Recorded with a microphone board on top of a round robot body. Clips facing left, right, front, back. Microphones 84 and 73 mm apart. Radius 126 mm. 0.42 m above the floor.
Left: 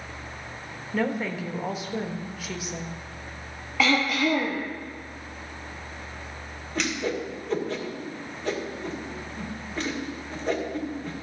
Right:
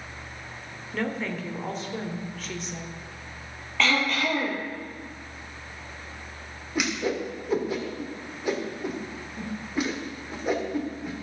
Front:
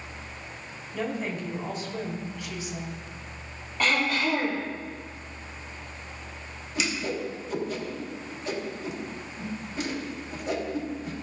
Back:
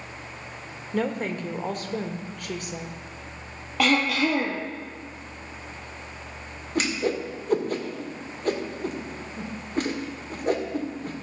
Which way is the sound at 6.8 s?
170° right.